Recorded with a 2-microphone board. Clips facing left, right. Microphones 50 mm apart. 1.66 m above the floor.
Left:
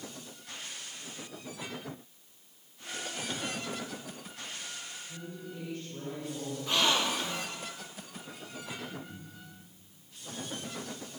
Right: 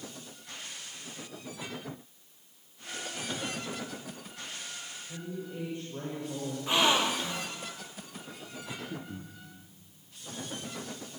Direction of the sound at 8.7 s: 55° right (ahead or behind).